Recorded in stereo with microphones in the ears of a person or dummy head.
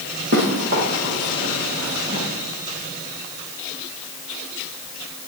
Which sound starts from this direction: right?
Running footsteps, at 0.3 s.